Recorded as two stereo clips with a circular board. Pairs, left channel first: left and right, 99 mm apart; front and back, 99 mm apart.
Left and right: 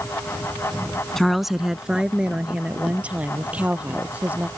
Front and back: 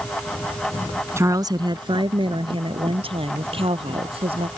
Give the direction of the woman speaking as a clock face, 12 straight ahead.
6 o'clock.